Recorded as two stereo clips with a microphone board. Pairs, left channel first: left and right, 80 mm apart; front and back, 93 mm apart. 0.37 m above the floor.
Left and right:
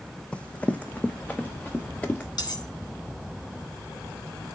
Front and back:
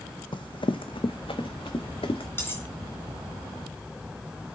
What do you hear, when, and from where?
0.3 s running footsteps: 15° left, 0.7 m; by 2.3 s 20° left, 1.7 m
2.4 s cutlery clinking: 65° left, 1.8 m